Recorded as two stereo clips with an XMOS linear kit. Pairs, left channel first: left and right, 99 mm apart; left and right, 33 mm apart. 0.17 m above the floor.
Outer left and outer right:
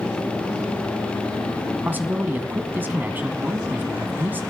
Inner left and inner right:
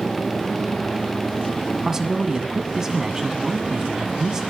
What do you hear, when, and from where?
1.9 s a man speaking: 20° right (ahead or behind), 1.2 m